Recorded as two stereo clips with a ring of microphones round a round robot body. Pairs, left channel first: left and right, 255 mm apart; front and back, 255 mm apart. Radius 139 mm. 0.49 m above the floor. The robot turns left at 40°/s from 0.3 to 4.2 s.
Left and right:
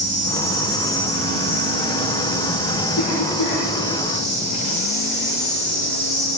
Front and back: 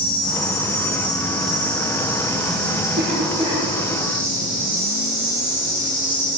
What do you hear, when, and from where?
0.0 s an insect: 45° right, 5.5 m; by 6.4 s 160° left, 5.5 m
3.0 s a cough: 135° left, 7 m; by 3.6 s 105° left, 7 m